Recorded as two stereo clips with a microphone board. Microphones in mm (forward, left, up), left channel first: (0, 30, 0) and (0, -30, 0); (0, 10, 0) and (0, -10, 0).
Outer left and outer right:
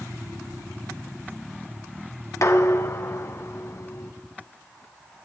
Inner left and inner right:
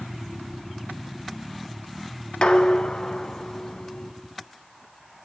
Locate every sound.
2.4 s dishes clattering: 50° left (ahead or behind), 1.2 m